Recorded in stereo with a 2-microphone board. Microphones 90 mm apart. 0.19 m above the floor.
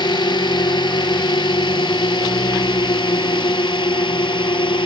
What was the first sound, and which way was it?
A drone, 60° left (ahead or behind).